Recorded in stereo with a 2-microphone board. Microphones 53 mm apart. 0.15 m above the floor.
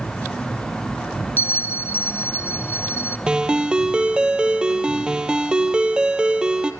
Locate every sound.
1.4 s a bell: 50° left (ahead or behind), 0.6 m
3.3 s a ringtone: 15° right (ahead or behind), 1.5 m